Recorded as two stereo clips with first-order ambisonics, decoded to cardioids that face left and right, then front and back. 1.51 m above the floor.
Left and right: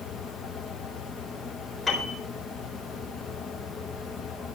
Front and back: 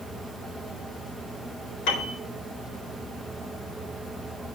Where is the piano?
15° left, 4 m.